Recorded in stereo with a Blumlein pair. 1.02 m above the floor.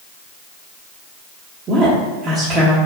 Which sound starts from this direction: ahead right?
A woman speaking, at 1.7 s.